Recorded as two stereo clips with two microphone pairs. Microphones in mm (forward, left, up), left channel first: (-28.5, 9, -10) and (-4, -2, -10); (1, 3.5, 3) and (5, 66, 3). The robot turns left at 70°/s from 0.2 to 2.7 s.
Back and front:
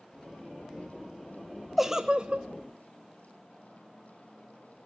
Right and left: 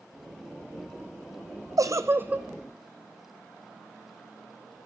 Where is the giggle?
60° left, 1.5 m; by 2.5 s 15° left, 1.5 m.